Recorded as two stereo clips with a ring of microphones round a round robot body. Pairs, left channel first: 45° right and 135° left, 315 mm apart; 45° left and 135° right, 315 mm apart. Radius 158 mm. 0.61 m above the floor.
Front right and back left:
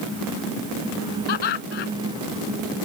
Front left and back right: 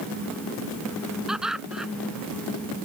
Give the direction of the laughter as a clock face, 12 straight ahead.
2 o'clock.